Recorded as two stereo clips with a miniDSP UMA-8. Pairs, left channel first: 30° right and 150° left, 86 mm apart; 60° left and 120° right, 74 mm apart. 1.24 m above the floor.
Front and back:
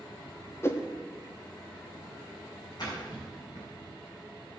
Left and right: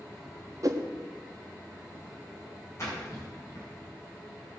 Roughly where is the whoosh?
Right.